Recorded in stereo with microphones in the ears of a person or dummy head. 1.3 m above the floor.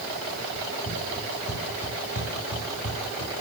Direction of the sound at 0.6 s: 45° left (ahead or behind).